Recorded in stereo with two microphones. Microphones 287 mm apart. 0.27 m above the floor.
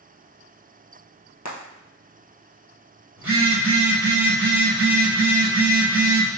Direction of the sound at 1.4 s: 70° left (ahead or behind).